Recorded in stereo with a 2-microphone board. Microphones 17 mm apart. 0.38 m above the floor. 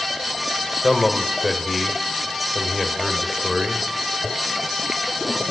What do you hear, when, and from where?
0.8 s a man speaking: centre (ahead or behind), 1.0 m